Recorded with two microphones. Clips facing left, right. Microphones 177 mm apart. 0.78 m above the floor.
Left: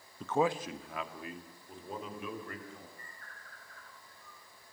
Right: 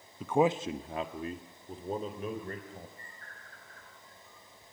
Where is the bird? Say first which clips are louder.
Right 1 dB; 40° right (ahead or behind), 7.5 m.